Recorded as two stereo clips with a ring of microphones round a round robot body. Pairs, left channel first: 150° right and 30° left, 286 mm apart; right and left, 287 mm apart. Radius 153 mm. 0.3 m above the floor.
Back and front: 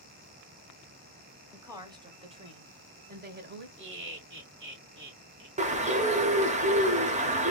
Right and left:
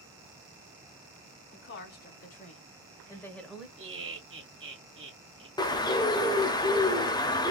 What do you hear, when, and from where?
1.5 s a woman speaking: 50° right, 1.8 m; by 3.7 s 5° left, 1.3 m
3.8 s laughter: 65° left, 2 m
5.6 s a bird: 20° right, 0.8 m